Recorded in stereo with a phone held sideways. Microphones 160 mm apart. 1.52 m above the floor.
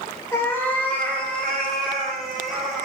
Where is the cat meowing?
15° left (ahead or behind), 1.4 m; by 2.9 s centre (ahead or behind), 2.5 m.